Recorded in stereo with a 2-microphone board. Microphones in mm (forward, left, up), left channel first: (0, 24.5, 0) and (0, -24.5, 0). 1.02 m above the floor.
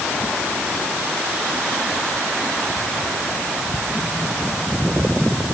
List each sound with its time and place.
Only background noise.